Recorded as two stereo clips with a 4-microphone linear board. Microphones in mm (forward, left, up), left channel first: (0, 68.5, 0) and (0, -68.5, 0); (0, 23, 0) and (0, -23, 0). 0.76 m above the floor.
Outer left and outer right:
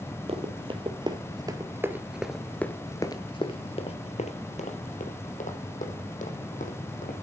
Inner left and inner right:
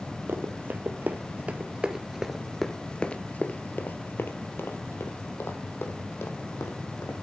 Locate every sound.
0.3 s running footsteps: 45° right (ahead or behind), 1.4 m; by 7.1 s 70° left (ahead or behind), 2.5 m